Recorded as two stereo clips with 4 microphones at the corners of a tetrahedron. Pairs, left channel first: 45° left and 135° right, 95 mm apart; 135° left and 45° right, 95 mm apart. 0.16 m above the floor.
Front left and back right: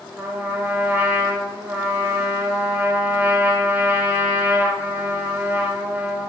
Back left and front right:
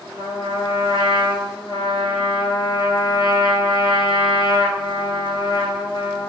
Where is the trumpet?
160° left, 1.3 m.